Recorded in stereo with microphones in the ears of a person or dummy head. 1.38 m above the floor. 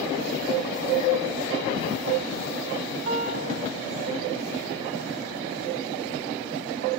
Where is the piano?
50° right (ahead or behind), 5.5 m.